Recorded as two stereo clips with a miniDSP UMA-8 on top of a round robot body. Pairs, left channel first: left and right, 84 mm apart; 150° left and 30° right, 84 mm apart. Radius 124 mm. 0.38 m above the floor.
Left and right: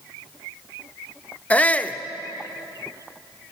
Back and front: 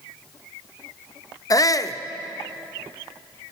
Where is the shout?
155° left, 1.0 m.